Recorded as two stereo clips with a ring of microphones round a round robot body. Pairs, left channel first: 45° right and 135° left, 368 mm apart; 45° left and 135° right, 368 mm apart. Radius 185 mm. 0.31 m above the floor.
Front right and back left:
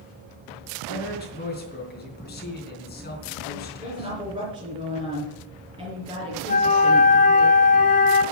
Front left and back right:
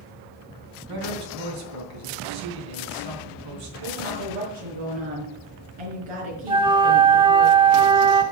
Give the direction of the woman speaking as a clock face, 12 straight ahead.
5 o'clock.